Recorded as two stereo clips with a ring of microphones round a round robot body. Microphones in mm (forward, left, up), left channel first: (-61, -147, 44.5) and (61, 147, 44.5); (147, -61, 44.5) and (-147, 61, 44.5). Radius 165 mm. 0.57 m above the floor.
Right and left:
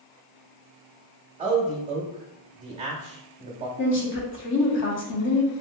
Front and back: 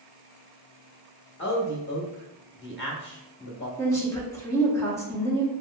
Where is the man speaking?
10° left, 0.7 m.